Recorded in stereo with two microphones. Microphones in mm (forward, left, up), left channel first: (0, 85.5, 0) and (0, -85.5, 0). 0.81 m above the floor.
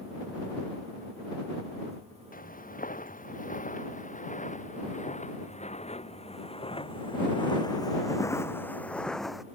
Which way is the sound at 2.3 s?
50° left (ahead or behind).